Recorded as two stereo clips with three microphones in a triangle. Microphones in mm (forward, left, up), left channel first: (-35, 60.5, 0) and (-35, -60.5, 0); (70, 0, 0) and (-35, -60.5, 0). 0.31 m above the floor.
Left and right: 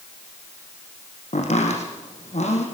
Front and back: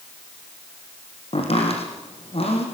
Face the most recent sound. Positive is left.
turn(degrees=65)